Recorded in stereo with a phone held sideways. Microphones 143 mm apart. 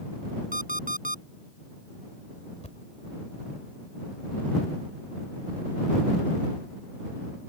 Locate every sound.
0.5 s an alarm clock: 70° right (ahead or behind)
2.6 s a thud: 50° left (ahead or behind)